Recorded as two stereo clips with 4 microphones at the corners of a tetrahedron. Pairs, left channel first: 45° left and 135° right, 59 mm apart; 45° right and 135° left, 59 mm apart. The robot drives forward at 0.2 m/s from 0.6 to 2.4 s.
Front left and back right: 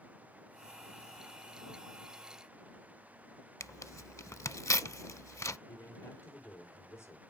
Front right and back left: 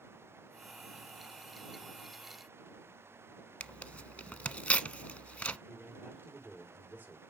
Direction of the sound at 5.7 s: 75° left.